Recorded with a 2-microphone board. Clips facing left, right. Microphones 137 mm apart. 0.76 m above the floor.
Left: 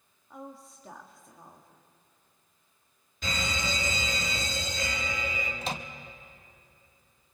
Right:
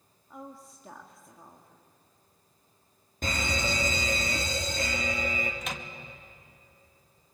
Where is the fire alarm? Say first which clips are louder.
Right 2 dB; 50° right (ahead or behind), 3 m.